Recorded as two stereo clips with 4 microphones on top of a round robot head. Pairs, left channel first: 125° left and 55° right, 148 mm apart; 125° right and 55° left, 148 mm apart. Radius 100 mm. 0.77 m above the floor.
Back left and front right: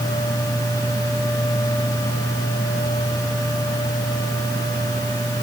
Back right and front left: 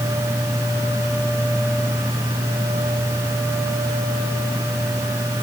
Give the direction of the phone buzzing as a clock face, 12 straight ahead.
No phone buzzing in this recording.